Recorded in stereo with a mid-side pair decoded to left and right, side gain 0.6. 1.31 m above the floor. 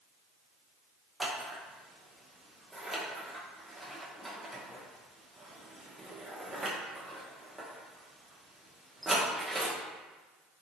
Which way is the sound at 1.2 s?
10° right.